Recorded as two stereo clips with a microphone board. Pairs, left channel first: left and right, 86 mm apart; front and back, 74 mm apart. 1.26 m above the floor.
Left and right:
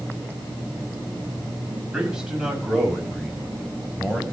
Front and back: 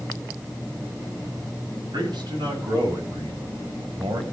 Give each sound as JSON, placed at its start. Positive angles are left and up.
{"t": 1.9, "sound": "a man speaking", "azimuth_deg": -170, "distance_m": 7.0}